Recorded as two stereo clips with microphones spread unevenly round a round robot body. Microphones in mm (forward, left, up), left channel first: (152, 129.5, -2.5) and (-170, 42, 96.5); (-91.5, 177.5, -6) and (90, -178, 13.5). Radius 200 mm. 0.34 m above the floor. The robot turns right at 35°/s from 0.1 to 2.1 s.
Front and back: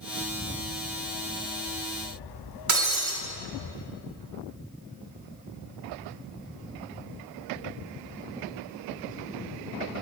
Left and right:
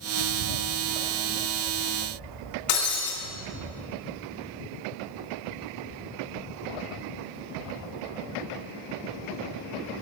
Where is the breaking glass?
155° left, 1.9 m.